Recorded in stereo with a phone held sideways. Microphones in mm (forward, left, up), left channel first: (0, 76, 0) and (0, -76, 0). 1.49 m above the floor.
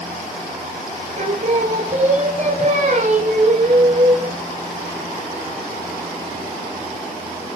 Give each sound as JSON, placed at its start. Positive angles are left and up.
{"t": 1.2, "sound": "singing", "side_deg": -50, "distance_m": 4.0}